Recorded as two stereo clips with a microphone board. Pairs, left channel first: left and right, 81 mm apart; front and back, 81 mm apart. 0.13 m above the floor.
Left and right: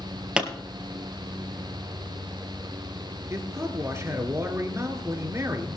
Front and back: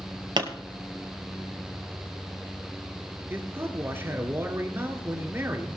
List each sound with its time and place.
0.4 s a pop: 170° right, 1.9 m
3.3 s a man speaking: 130° right, 2.5 m